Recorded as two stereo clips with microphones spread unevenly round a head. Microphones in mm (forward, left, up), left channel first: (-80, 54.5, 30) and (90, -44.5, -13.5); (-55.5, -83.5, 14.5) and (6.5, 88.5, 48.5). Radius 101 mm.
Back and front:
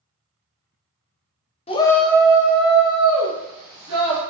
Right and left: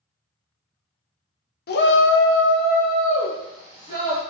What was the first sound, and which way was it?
A shout, 145° right.